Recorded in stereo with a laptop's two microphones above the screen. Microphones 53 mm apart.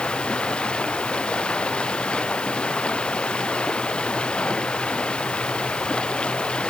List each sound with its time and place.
0.0 s running water: 20° left (ahead or behind)